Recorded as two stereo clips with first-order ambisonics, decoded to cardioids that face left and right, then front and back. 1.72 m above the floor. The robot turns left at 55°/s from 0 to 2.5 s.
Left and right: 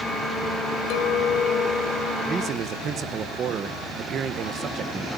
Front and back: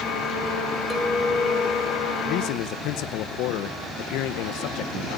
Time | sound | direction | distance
0.9 | a clink | 95° left | 1.7 m
2.2 | a man speaking | 15° right | 1.3 m